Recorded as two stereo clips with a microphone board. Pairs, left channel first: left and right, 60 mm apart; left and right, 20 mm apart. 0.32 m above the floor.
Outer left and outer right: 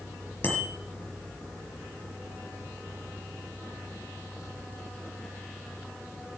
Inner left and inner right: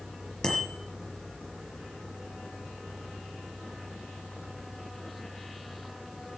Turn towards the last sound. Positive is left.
turn(degrees=35)  # may be behind; listen again after turning